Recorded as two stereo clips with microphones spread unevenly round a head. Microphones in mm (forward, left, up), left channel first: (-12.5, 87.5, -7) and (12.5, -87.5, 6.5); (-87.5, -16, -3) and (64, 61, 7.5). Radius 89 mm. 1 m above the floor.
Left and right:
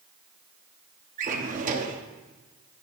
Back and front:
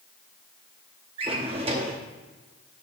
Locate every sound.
1.2 s a drawer: 35° right, 1.1 m